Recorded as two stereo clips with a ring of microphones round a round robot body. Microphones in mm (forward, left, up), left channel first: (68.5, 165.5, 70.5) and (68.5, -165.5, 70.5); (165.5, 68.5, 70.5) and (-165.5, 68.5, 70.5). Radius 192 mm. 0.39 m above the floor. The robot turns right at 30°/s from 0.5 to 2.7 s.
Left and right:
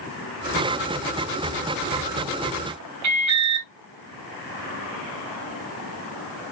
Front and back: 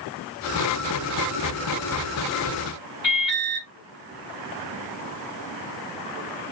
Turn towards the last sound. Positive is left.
turn(degrees=-60)